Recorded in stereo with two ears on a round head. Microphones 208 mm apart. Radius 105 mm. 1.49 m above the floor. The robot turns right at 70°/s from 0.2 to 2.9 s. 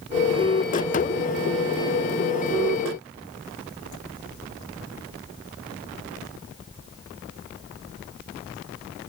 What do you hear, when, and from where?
Only background noise.